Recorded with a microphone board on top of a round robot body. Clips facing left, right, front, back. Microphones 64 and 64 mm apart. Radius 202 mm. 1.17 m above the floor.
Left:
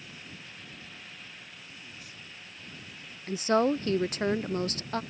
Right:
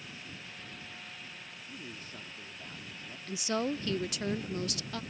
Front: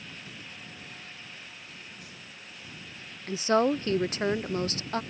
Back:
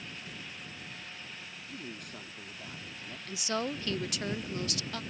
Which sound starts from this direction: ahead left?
A woman speaking, at 3.3 s.